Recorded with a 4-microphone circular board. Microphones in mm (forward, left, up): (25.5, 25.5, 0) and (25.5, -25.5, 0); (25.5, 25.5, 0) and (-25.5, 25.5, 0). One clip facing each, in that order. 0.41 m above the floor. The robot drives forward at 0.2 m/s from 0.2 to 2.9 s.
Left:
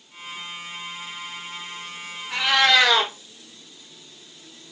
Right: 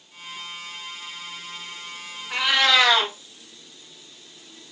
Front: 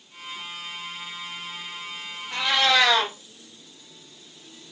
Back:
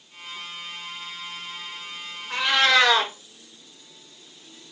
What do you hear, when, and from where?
2.3 s a cat meowing: 170° right, 1.5 m